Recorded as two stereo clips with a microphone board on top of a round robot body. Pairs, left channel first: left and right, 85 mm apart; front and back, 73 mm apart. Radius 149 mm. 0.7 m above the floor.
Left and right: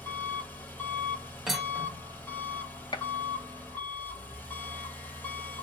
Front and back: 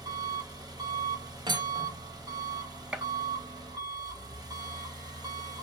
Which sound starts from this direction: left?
A gunshot, at 2.9 s.